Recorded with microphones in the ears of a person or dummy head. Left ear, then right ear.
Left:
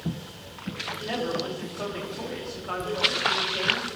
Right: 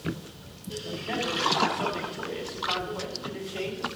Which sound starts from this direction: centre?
A man speaking, at 1.0 s.